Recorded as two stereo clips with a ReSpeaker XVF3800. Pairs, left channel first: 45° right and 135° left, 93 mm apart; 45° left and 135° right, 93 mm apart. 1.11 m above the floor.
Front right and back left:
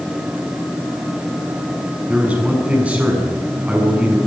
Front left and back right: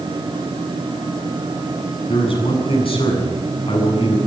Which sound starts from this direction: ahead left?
A man speaking, at 2.1 s.